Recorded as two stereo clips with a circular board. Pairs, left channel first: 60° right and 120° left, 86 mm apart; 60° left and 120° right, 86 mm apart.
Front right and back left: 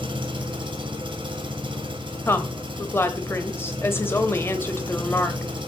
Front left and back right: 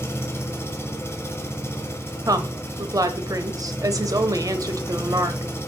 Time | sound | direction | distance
0.0 | an engine running | 120° left | 1.4 m
2.3 | a woman speaking | 110° right | 1.1 m